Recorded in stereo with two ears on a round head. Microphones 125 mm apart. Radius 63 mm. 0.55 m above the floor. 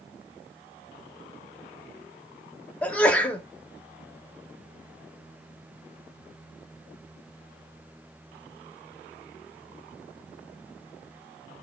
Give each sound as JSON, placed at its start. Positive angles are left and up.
{"t": 2.8, "sound": "a sneeze", "side_deg": 10, "distance_m": 0.7}